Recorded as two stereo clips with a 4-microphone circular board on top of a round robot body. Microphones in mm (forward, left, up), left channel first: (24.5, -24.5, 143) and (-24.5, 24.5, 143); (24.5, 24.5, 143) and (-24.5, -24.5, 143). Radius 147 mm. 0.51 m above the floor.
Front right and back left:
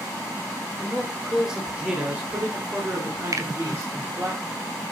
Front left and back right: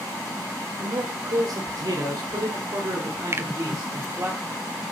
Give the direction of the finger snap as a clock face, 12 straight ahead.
6 o'clock.